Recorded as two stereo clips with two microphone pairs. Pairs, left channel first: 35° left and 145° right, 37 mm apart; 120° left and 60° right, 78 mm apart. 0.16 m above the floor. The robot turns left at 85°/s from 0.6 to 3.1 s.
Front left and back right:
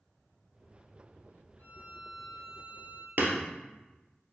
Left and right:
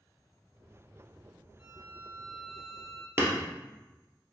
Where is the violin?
20° left, 2 m; by 3.1 s 105° right, 2 m.